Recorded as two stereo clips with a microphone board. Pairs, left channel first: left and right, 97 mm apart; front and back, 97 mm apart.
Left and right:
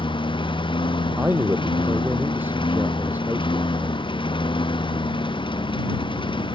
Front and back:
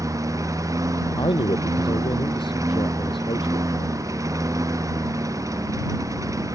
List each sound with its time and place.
0.0 s a lawn mower: 120° left
1.2 s a man speaking: 20° right